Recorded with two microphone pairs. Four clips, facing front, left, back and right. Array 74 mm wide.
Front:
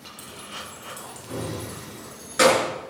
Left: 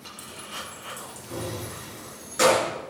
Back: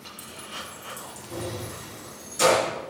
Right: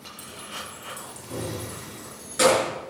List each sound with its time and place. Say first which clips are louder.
0.2 s keys jangling: even, front 1 dB; 20° left, 2 m; by 2.7 s straight ahead, 3.5 m